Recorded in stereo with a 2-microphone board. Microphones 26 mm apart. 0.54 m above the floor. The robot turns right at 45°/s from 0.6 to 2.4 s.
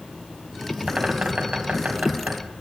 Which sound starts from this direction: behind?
A bird, at 0.9 s.